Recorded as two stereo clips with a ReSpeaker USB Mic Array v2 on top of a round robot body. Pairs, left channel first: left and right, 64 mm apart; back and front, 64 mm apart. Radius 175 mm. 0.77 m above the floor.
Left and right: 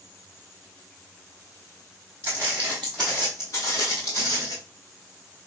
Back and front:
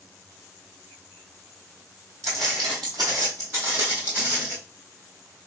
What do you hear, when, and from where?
2.2 s footsteps: 40° right, 0.9 m; by 4.6 s 80° left, 1.1 m